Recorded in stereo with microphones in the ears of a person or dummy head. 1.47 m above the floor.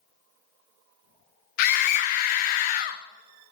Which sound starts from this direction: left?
A scream, at 1.6 s.